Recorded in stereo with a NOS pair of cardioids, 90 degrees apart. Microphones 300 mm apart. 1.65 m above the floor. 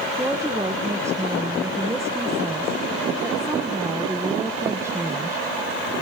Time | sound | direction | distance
0.2 | a woman speaking | 10° right | 1.5 m